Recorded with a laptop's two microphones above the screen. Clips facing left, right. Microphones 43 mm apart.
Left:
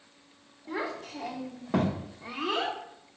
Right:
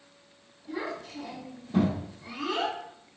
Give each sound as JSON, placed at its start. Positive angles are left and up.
{"t": 0.7, "sound": "a child speaking", "side_deg": 60, "distance_m": 1.4}